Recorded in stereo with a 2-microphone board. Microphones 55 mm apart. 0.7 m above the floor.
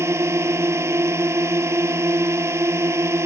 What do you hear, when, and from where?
0.0 s a drone: 55° right (ahead or behind)